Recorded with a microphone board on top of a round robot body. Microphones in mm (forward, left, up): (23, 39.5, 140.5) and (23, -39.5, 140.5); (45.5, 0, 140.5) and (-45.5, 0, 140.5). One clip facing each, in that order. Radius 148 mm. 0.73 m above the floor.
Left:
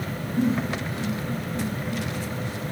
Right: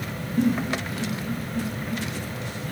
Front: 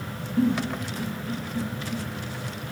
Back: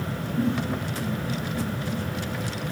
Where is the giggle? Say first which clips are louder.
Right 1 dB, front 3 dB; 25° left, 5.5 m.